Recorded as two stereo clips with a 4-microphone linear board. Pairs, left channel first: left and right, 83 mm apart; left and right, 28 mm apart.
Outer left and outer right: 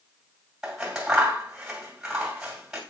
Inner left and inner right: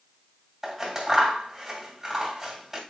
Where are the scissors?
10° right (ahead or behind), 2 m.